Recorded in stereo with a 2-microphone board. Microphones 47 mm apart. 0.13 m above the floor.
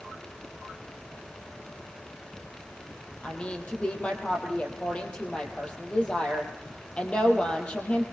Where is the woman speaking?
25° left (ahead or behind), 5 m.